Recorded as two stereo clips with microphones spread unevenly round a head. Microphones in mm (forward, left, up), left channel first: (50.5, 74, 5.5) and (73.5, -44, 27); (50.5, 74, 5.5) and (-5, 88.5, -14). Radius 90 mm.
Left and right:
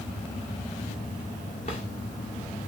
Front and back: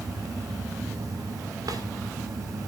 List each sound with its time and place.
1.6 s a drawer: 155° left, 1.8 m